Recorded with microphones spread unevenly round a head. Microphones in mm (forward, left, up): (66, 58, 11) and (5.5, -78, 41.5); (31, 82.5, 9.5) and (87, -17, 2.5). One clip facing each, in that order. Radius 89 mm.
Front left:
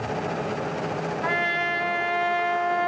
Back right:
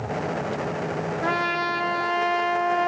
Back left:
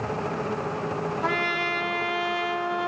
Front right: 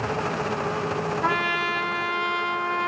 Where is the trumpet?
160° right, 1.1 m.